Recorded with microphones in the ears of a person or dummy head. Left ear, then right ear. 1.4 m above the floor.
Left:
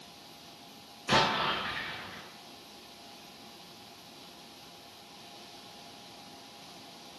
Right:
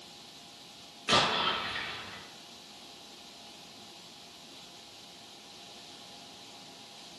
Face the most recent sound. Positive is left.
turn(degrees=-40)  # may be behind; listen again after turning